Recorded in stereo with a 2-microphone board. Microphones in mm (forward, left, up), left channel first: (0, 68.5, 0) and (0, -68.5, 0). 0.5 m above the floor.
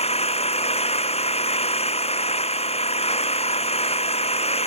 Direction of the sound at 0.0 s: 50° left (ahead or behind).